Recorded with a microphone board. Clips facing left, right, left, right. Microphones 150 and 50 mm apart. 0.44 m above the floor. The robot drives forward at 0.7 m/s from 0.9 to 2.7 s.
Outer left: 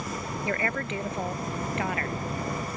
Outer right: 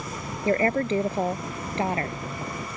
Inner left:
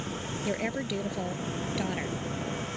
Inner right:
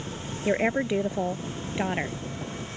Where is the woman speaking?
30° right (ahead or behind).